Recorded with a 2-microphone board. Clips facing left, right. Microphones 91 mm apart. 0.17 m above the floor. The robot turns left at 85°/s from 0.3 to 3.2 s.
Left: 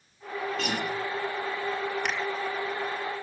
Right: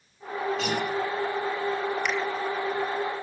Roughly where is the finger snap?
Left.